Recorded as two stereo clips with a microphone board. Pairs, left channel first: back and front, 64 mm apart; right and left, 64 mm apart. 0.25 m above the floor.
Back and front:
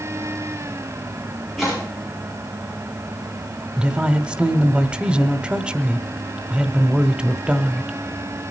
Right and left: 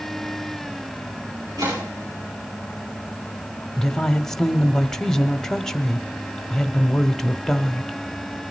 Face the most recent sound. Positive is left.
turn(degrees=-25)